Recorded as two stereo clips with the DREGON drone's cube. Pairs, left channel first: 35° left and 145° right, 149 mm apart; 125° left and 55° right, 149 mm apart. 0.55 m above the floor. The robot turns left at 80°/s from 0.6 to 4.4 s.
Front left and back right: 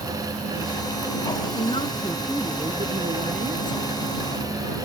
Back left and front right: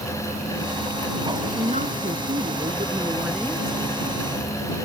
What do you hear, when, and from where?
1.5 s a woman speaking: straight ahead; by 4.0 s 160° left